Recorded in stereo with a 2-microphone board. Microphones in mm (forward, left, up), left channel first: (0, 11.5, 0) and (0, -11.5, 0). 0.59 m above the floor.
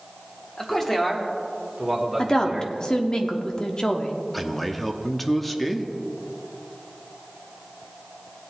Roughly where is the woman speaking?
Left.